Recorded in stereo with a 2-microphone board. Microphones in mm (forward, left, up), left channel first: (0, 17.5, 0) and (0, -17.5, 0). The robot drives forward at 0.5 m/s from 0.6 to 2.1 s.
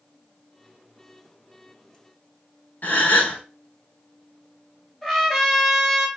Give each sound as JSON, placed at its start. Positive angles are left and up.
{"t": 2.8, "sound": "a gasp", "side_deg": 60, "distance_m": 1.1}
{"t": 5.0, "sound": "a trumpet", "side_deg": 5, "distance_m": 1.2}